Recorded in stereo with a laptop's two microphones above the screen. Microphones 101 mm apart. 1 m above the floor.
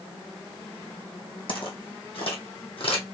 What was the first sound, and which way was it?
Footsteps, 55° left (ahead or behind).